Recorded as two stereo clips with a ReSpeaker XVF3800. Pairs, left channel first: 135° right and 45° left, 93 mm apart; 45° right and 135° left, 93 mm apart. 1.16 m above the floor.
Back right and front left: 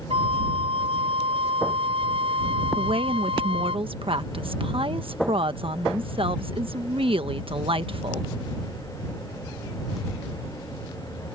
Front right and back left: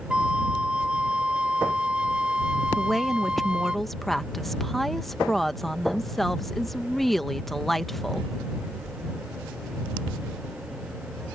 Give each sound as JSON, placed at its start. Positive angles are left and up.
{"t": 0.1, "sound": "a flute", "azimuth_deg": 55}
{"t": 2.8, "sound": "a woman speaking", "azimuth_deg": 45}